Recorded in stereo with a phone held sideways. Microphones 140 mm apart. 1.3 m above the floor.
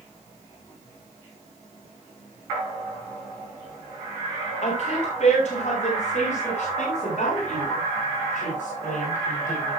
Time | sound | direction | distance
4.6 | a woman speaking | 55° left (ahead or behind) | 4.5 m